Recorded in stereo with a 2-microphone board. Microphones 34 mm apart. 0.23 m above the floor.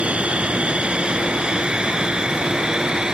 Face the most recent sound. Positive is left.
turn(degrees=-25)  # may be behind; listen again after turning